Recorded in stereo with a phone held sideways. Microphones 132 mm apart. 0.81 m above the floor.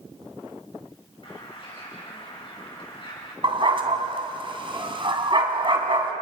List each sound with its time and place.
1.2 s a bird: 45° left (ahead or behind), 5 m
3.4 s a dog barking: 40° right (ahead or behind), 2.5 m